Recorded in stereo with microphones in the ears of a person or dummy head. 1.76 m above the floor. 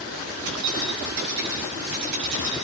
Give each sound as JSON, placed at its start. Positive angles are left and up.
{"t": 0.5, "sound": "keys jangling", "side_deg": -70, "distance_m": 5.5}